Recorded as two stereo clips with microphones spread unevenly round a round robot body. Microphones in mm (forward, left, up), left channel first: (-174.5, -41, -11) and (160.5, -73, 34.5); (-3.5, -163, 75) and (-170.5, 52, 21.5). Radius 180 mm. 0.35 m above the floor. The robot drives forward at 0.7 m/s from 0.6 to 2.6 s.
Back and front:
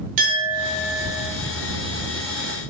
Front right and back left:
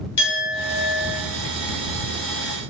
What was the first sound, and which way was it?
A clink, 20° right.